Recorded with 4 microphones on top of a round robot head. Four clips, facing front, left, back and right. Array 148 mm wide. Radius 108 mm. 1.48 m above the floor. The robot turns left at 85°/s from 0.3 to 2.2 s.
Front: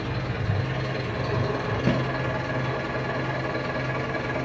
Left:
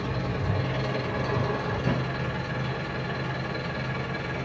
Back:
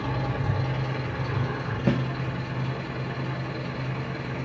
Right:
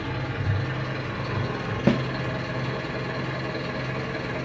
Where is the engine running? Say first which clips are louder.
Left 1 dB, back 1 dB; 140° left, 2 m; by 4.5 s 25° right, 2 m.